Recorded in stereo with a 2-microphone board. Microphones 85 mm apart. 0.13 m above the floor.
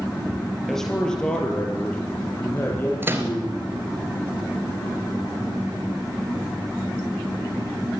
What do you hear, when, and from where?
0.7 s a man speaking: centre (ahead or behind), 4 m; by 3.6 s 30° left (ahead or behind), 5.5 m
3.0 s a microwave: 25° right (ahead or behind), 2 m